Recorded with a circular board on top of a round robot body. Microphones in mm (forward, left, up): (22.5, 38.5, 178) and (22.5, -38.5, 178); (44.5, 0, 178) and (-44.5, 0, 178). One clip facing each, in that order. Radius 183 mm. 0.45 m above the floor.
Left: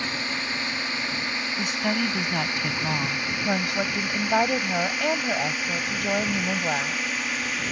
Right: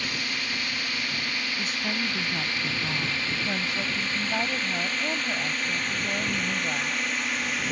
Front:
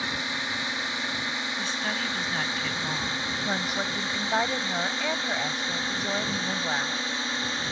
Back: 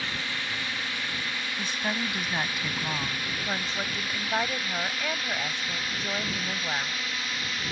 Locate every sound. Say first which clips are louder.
0.0 s a drone: left 3 dB, front 2 dB; 50° left; by 7.7 s 5° left
1.6 s a woman speaking: left 7 dB, back 2 dB; 105° left
3.5 s a woman speaking: left 4 dB, front 3 dB; 80° left